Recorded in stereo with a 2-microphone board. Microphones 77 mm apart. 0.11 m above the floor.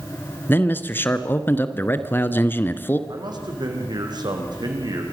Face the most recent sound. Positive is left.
turn(degrees=-60)  # may be behind; listen again after turning